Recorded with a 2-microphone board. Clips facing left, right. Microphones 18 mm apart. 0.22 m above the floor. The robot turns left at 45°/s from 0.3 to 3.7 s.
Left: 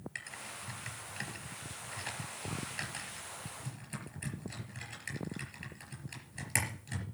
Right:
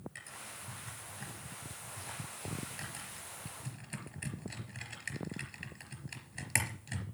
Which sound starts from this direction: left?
Typing on a keyboard, at 0.1 s.